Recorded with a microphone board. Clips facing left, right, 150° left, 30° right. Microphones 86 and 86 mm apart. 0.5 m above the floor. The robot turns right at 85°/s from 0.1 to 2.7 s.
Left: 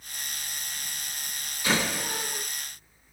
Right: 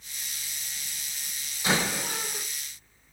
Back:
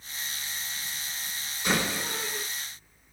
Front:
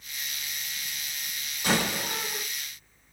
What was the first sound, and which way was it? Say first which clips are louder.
A door slam: even, front 1 dB; 25° right.